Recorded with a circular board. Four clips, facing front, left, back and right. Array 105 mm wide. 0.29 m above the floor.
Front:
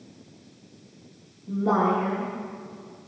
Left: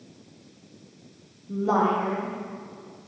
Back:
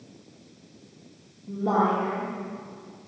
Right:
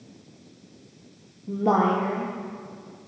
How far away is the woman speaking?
About 7 m.